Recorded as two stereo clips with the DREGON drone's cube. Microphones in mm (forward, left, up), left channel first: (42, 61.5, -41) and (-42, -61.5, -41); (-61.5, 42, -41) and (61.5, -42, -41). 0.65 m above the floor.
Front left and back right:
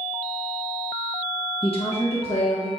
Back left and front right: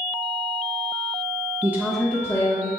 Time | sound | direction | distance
1.6 | a woman speaking | 30° left | 0.9 m